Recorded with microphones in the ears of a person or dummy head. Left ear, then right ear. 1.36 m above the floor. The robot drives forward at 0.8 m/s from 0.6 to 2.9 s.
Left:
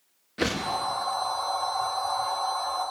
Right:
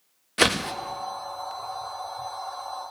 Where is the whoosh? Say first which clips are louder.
Right 6 dB; 20° right (ahead or behind), 0.8 m.